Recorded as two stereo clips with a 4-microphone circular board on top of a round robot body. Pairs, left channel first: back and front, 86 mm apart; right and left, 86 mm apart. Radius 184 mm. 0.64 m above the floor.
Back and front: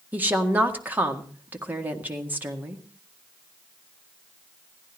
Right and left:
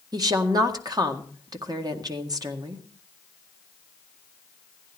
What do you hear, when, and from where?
0.1 s a woman speaking: 65° left, 1.7 m